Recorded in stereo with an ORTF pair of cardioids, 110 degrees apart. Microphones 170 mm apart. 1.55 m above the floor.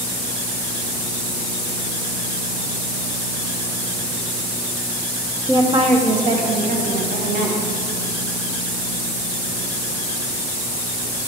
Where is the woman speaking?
25° right, 1.0 m; by 7.7 s 75° right, 2 m.